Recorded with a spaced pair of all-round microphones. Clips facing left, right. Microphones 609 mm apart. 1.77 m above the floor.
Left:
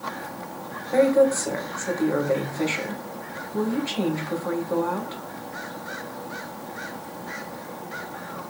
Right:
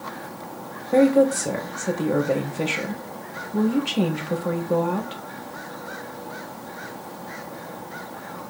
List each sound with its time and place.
0.9 s a woman speaking: 55° right (ahead or behind), 1.4 m